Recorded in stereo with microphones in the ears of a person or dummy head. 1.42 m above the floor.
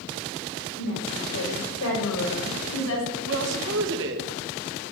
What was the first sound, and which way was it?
A woman speaking, 75° left (ahead or behind).